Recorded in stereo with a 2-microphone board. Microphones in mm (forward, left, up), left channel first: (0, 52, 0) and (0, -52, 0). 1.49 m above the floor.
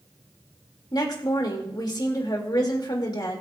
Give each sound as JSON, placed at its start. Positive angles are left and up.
{"t": 0.9, "sound": "a woman speaking", "side_deg": 45, "distance_m": 2.5}